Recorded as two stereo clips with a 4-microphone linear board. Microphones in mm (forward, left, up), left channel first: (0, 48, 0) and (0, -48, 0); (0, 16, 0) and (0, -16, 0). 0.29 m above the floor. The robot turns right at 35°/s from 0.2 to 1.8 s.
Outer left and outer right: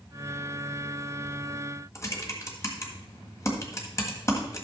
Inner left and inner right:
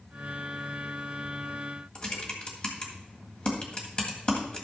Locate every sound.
1.9 s typing on a keyboard: 30° left (ahead or behind), 1.9 m